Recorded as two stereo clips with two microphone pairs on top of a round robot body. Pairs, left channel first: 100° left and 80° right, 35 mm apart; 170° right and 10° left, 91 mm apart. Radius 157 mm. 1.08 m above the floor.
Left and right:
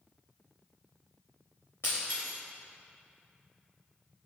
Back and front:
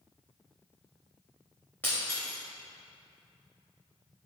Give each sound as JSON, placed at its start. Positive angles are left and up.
{"t": 1.8, "sound": "breaking glass", "azimuth_deg": 115, "distance_m": 0.9}